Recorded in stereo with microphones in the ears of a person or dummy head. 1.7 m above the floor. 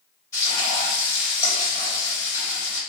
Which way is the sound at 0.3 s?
20° left (ahead or behind).